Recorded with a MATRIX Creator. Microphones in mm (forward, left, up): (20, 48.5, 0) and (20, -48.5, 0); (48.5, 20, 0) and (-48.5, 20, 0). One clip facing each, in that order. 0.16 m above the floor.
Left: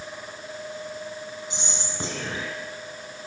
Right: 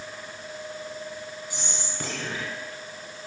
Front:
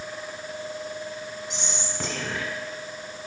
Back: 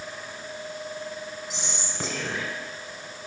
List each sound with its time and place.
1.5 s whispering: 95° left, 1.5 m